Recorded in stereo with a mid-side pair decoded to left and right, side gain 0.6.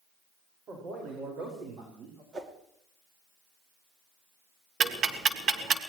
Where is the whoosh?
35° right, 2.5 m.